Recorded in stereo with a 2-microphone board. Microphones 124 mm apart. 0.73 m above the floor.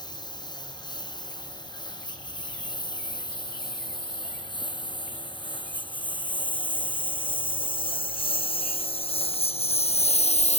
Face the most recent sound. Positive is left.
turn(degrees=60)  # may be behind; listen again after turning